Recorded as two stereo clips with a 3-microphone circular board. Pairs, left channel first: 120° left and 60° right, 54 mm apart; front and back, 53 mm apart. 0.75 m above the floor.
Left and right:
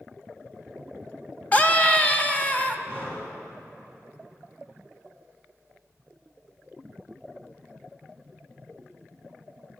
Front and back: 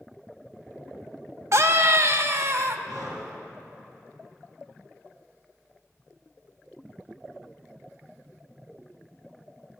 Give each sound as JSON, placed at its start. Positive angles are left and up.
{"t": 1.5, "sound": "a scream", "azimuth_deg": 175, "distance_m": 0.8}
{"t": 2.9, "sound": "breathing", "azimuth_deg": 170, "distance_m": 3.0}